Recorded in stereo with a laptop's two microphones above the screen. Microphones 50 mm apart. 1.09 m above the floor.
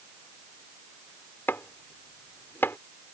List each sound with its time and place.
1.5 s chopping: 50° left (ahead or behind)